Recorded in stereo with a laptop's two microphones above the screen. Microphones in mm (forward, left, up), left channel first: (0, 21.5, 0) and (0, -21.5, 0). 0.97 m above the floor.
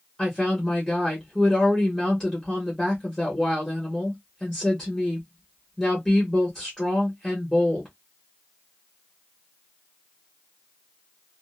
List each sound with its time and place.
0.2 s a woman speaking: 5° left (ahead or behind), 1.0 m